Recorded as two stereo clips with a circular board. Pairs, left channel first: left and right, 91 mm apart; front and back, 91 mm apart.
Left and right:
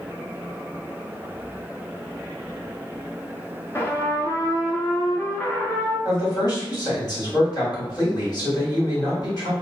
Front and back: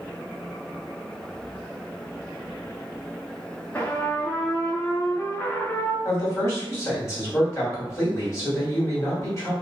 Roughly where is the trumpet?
Ahead left.